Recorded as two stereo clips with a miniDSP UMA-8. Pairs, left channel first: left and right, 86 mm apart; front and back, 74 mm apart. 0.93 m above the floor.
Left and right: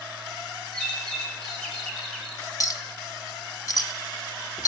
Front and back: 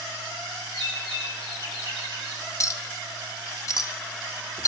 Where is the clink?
45° left, 0.8 m.